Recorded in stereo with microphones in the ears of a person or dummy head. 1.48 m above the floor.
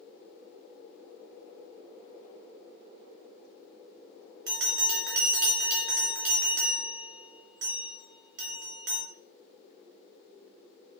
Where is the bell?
65° right (ahead or behind), 1.1 m.